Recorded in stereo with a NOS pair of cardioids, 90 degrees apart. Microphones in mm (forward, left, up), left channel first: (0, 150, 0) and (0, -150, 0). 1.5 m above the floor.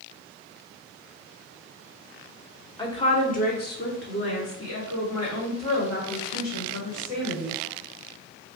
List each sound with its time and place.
2.8 s a woman speaking: 15° left, 1.3 m; by 7.5 s 70° left, 3 m